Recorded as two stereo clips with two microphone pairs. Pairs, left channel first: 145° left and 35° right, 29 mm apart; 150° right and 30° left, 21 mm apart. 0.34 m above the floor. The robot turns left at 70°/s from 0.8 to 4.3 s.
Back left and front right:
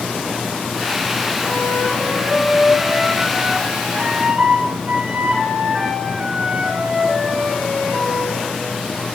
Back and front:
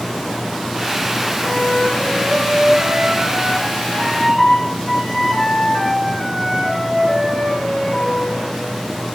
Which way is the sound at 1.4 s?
130° left.